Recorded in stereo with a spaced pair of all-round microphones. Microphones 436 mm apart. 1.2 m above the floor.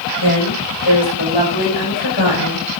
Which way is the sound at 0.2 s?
65° left (ahead or behind).